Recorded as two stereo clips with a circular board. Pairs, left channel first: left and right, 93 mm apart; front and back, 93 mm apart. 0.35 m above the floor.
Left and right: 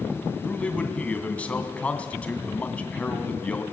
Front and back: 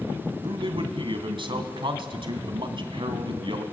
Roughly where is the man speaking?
Behind.